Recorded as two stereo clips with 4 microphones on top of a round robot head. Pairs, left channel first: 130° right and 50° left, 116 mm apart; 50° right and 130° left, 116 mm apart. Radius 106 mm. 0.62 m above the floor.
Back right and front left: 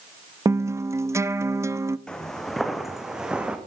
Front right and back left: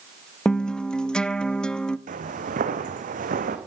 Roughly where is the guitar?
Ahead left.